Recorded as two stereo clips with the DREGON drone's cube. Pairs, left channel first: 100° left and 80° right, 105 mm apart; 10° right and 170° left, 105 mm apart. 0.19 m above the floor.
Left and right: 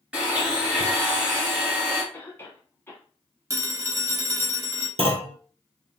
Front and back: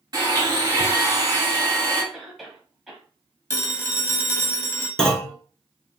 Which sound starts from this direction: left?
A cough, at 2.1 s.